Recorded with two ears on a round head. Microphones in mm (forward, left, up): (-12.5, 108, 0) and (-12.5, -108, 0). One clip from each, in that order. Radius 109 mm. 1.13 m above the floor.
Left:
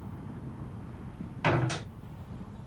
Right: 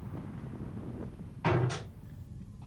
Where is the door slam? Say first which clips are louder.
Left 3 dB; 75° left (ahead or behind), 4.5 m.